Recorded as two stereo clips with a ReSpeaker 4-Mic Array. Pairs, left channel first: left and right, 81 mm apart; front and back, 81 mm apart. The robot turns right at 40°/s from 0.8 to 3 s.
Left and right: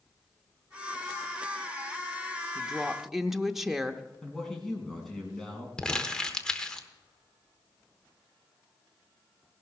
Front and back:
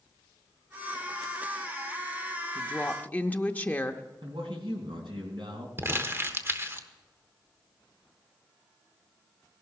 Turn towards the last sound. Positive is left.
turn(degrees=160)